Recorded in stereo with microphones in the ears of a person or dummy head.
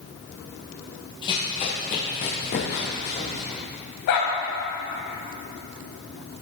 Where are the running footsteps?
20° left (ahead or behind), 1.6 m; by 3.6 s 40° left (ahead or behind), 3.5 m.